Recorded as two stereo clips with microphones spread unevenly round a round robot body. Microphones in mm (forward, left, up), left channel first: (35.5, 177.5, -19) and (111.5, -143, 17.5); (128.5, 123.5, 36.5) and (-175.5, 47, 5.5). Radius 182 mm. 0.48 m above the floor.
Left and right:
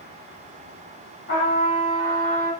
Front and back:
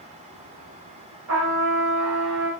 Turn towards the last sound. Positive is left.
turn(degrees=170)